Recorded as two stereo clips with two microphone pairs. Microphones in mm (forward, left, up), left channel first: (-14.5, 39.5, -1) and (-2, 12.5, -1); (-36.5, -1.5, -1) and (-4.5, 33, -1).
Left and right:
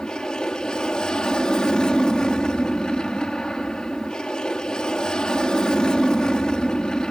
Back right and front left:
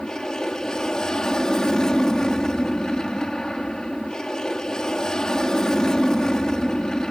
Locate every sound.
0.0 s an aircraft: 160° left